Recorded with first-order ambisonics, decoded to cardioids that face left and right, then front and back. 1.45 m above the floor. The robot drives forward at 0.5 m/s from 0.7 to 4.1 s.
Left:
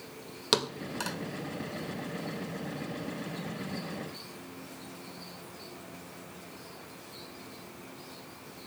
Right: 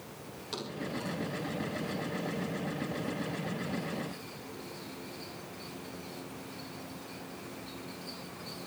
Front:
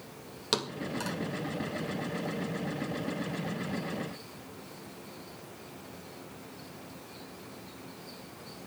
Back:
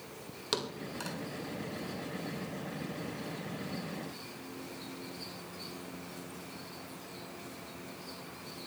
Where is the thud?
75° left, 1.8 m; by 1.2 s 85° left, 1.7 m.